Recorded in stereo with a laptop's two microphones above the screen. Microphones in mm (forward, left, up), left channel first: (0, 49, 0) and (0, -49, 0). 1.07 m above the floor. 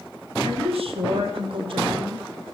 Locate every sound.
0.4 s a woman speaking: 80° right, 4 m; by 2.2 s 45° right (ahead or behind), 2.5 m